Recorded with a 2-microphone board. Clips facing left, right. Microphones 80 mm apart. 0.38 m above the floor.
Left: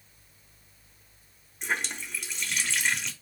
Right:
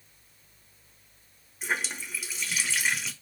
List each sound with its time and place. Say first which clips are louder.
1.6 s a running tap: even; 5° right (ahead or behind), 0.8 m